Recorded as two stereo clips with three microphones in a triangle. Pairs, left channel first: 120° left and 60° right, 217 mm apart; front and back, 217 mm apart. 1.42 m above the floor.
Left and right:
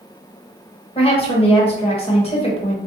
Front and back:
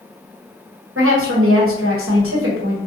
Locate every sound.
0.9 s a woman speaking: 175° right, 1.1 m